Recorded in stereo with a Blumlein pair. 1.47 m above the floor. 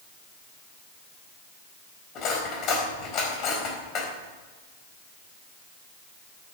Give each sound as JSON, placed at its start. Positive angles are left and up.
{"t": 2.1, "sound": "cutlery clinking", "azimuth_deg": 35, "distance_m": 4.0}